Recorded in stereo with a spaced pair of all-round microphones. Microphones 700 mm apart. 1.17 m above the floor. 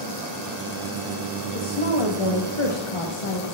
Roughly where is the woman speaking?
Left.